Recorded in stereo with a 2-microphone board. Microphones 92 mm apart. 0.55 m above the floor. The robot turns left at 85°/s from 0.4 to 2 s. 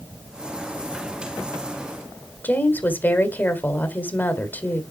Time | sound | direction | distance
2.4 | a woman speaking | 20° left (ahead or behind) | 1.5 m